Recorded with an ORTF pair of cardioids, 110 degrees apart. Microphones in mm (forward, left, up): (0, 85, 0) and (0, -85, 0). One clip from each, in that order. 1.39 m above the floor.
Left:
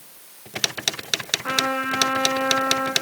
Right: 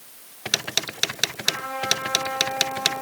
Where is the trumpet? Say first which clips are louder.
Left 3 dB; 70° left, 6.5 m.